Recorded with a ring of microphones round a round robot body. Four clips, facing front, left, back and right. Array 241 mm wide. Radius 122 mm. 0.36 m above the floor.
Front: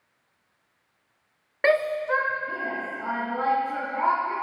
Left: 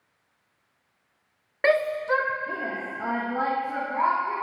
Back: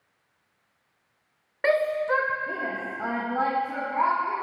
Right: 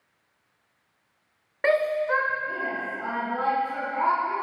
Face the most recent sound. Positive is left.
turn(degrees=160)